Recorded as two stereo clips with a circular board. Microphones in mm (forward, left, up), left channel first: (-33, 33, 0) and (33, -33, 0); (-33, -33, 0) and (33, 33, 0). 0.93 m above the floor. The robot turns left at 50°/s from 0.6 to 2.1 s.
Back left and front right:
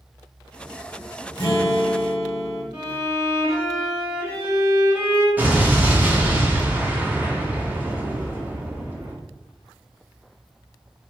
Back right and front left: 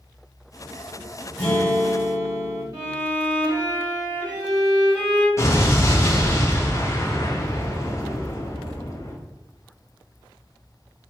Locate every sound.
1.4 s a guitar: 160° left, 1.6 m; by 2.6 s 125° left, 1.6 m
2.7 s a violin: 10° left, 1.2 m
5.4 s an explosion: 105° right, 0.6 m